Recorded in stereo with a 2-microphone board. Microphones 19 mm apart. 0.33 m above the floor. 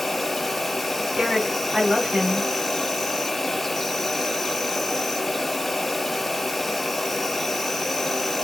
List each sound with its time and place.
0.0 s an insect: 10° left (ahead or behind), 0.7 m
1.2 s a woman speaking: 55° right (ahead or behind), 2.5 m